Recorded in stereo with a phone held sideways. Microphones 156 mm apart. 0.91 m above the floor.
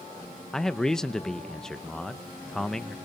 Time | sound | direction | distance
0.5 | a man speaking | 5° left (ahead or behind) | 0.7 m